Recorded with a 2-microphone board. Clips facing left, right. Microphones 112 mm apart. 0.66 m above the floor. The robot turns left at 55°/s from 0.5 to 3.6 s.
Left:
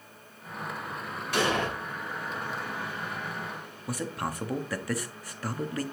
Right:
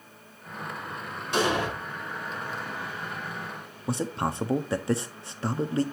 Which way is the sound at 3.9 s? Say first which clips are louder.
Right 4 dB; 25° right (ahead or behind).